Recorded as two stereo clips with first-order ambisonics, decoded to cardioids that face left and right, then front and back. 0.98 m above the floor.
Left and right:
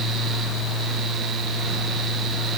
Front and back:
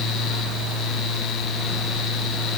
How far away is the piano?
No piano in this recording.